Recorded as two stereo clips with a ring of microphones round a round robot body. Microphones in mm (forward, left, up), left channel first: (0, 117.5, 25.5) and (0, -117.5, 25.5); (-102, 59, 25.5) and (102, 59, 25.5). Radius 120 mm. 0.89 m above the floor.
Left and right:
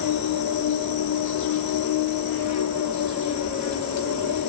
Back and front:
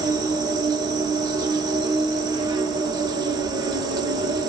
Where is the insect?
70° left, 0.9 m.